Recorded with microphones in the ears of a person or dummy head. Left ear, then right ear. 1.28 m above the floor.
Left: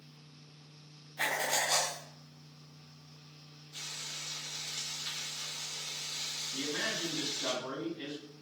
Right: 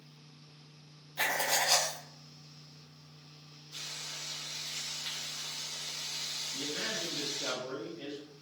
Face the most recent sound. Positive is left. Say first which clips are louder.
# left 3 dB
turn(degrees=55)  # may be behind; listen again after turning